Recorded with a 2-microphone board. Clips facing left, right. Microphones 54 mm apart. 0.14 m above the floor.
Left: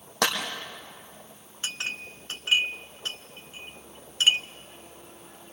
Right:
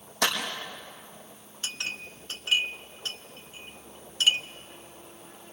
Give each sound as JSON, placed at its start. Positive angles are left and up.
{"t": 0.2, "sound": "a clap", "side_deg": 60, "distance_m": 4.5}
{"t": 1.6, "sound": "a clink", "side_deg": 25, "distance_m": 0.8}